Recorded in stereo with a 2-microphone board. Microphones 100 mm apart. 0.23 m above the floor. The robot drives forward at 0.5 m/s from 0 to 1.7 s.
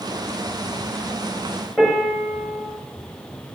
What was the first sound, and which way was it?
A piano, 10° left (ahead or behind).